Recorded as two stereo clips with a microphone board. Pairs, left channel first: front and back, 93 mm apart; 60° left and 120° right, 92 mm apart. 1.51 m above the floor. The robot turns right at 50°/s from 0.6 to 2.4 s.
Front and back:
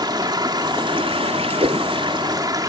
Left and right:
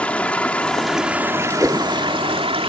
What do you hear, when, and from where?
0.0 s running water: 135° left; by 2.7 s 135° right
1.6 s a whoosh: 170° left; by 1.9 s 175° right